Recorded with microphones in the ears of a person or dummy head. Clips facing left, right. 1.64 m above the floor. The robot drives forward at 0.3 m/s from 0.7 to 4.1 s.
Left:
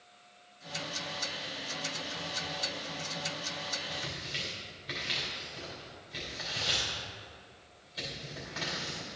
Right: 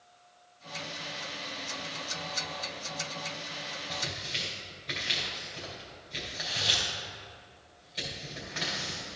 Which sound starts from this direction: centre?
Tearing paper, at 3.9 s.